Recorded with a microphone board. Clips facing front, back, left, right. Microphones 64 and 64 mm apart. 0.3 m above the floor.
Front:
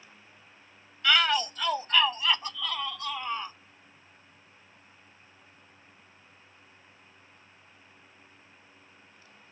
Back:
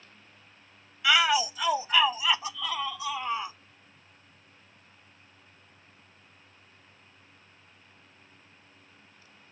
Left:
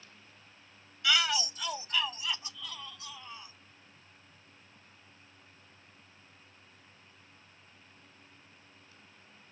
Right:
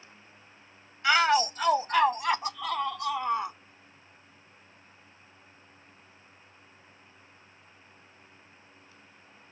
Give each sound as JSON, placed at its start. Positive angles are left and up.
{"t": 1.0, "sound": "a shout", "azimuth_deg": -105}